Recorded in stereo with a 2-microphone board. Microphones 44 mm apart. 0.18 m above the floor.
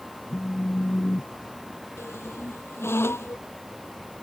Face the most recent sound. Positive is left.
turn(degrees=75)  # may be behind; listen again after turning